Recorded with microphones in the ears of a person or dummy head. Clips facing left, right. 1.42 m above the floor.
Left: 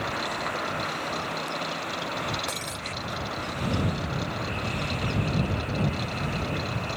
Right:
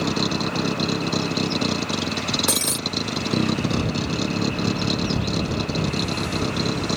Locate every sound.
0.0 s a vehicle: 60° right (ahead or behind)
2.5 s breaking glass: 70° right (ahead or behind)